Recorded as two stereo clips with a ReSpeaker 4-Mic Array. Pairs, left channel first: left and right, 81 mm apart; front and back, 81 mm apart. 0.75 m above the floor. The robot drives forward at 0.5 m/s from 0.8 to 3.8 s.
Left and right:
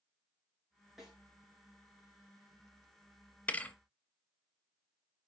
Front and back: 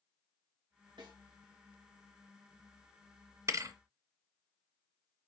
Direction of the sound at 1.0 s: Straight behind.